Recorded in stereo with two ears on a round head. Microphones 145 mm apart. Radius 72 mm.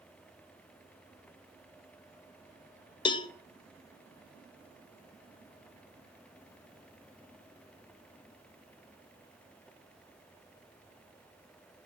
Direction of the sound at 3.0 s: 30° left (ahead or behind).